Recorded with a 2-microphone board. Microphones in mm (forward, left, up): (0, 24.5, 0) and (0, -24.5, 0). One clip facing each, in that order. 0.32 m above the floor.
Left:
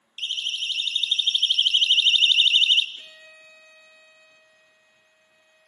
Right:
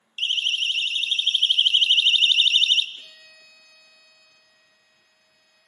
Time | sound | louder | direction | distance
0.2 | a siren | right 5 dB | 50° right (ahead or behind) | 4 m
3.0 | a violin | left 1 dB | 20° left (ahead or behind) | 1.7 m